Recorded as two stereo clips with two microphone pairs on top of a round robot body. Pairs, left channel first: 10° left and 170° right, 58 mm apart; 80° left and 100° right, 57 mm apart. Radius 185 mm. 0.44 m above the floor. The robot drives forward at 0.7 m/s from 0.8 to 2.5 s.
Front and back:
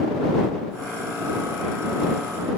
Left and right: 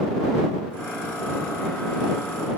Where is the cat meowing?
No cat meowing in this recording.